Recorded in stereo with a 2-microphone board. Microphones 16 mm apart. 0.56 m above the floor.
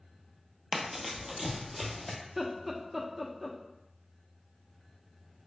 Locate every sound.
0.7 s running footsteps: 35° right (ahead or behind), 0.6 m; by 2.1 s 5° right (ahead or behind), 1.0 m
2.2 s laughter: 5° right (ahead or behind), 0.6 m